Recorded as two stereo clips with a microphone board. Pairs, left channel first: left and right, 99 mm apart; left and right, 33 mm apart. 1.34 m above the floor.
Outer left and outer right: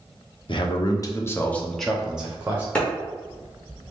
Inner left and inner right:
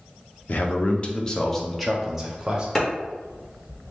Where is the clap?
10° left (ahead or behind), 1.5 m.